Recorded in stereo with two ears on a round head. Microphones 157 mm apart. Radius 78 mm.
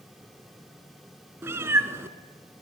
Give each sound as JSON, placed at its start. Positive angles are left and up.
{"t": 1.4, "sound": "a cat meowing", "side_deg": -15, "distance_m": 1.3}